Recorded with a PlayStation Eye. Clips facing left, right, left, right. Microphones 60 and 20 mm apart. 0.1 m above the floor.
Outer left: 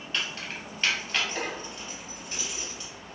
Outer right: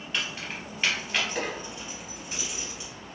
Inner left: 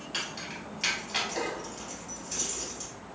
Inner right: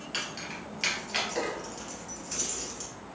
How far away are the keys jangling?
About 1.4 m.